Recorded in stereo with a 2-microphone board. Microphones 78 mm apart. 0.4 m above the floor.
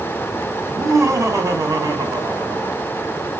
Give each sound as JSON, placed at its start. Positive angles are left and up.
{"t": 0.6, "sound": "laughter", "side_deg": -40, "distance_m": 3.5}